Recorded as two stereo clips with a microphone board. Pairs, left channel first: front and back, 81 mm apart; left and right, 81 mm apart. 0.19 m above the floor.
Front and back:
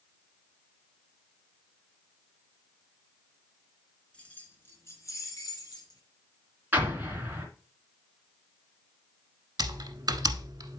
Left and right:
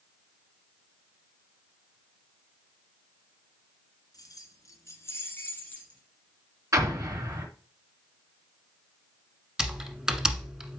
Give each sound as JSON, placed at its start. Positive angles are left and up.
{"t": 4.1, "sound": "keys jangling", "azimuth_deg": 70, "distance_m": 1.8}
{"t": 6.7, "sound": "an explosion", "azimuth_deg": -120, "distance_m": 2.5}
{"t": 9.6, "sound": "typing on a keyboard", "azimuth_deg": -170, "distance_m": 1.1}